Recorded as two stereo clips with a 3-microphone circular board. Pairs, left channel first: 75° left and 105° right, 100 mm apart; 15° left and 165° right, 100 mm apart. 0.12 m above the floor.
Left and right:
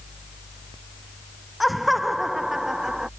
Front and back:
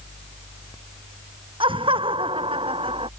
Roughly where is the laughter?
Behind.